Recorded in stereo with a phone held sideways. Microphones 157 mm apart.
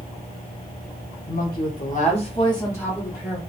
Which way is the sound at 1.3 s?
75° left (ahead or behind).